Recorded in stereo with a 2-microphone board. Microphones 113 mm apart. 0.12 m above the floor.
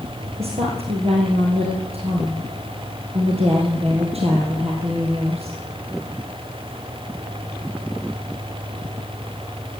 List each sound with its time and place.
0.4 s a woman speaking: 65° right (ahead or behind), 3 m